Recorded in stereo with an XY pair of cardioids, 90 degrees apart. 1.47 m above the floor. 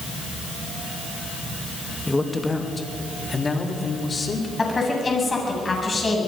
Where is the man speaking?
15° left, 2.5 m; by 4.5 s 35° left, 5 m.